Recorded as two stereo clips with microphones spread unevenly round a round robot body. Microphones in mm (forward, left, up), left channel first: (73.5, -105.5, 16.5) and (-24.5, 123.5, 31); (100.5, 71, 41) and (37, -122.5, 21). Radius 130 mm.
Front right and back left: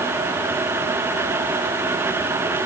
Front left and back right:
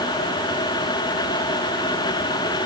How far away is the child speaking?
No child speaking in this recording.